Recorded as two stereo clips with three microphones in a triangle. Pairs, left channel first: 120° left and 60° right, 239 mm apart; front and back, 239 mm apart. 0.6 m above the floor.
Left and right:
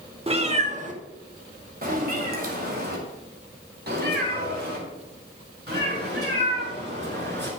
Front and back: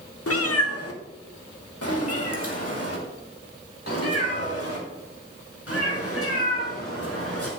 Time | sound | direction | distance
0.3 | a cat meowing | 5° left | 1.0 m